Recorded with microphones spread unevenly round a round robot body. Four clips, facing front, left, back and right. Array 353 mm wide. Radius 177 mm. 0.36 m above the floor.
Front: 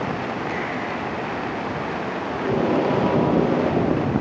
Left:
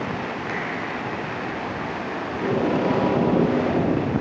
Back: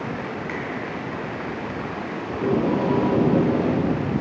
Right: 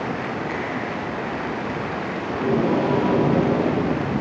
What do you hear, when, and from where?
0.5 s a finger snap: 120° left, 1.8 m
2.3 s tape being pulled: 175° right, 3.5 m